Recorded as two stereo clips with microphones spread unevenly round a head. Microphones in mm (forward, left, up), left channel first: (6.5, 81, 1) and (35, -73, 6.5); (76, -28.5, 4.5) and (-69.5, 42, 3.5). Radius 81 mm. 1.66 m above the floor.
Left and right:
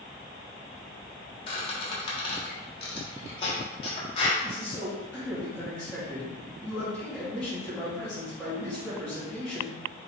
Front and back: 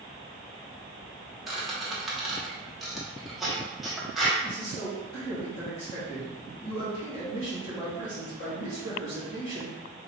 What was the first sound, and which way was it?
A squeak, 65° left.